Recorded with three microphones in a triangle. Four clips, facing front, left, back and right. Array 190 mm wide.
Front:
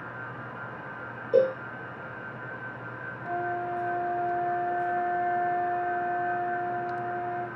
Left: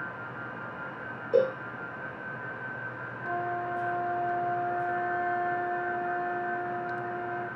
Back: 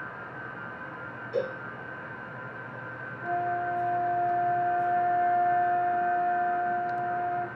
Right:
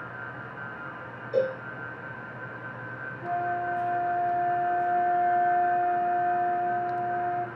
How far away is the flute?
About 0.8 m.